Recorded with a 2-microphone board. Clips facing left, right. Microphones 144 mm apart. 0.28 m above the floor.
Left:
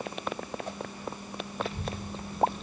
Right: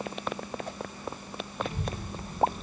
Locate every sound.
1.6 s a child speaking: 25° right (ahead or behind), 1.6 m; by 2.6 s 15° right (ahead or behind), 2 m